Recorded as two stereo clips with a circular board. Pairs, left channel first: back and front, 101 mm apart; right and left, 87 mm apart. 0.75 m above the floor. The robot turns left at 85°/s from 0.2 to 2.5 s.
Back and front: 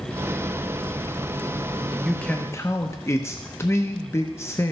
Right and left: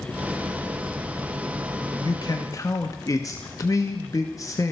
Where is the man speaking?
85° right, 0.6 m; by 4.7 s 125° right, 0.6 m.